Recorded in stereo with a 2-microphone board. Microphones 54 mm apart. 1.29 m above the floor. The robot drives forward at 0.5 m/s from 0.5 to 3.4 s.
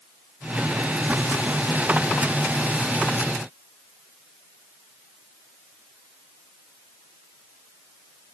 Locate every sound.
Only background noise.